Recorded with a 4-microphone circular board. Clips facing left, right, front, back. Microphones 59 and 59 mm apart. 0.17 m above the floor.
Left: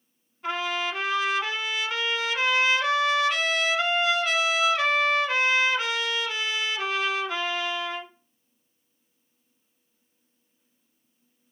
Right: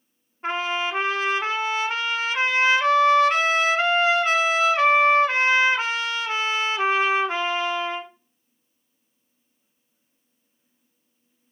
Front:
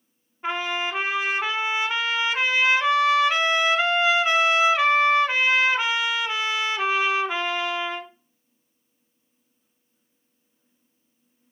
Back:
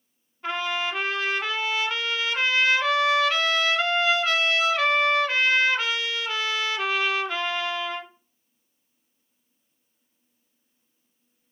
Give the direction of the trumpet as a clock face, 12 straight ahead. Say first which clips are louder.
Right 3 dB, front 1 dB; 2 o'clock.